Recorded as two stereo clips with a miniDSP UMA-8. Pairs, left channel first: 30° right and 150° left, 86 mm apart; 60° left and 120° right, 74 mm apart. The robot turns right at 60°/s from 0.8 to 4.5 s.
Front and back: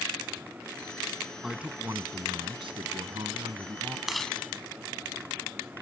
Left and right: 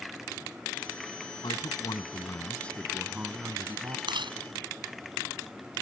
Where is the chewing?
125° right; by 4.4 s 105° right.